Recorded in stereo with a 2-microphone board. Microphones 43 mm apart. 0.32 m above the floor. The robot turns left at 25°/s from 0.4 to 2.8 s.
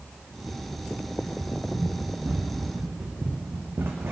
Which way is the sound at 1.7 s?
15° right (ahead or behind).